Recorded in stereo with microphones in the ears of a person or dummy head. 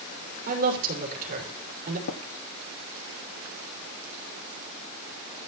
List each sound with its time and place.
0.5 s a woman speaking: 50° right (ahead or behind), 5.5 m
2.1 s tapping: 75° left (ahead or behind), 0.9 m